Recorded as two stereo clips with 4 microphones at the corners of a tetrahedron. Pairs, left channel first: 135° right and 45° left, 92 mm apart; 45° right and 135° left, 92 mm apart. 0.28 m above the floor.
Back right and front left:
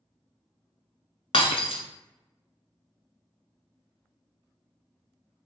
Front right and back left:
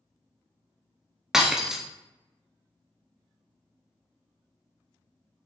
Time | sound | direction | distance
1.3 | breaking glass | 140° right | 0.6 m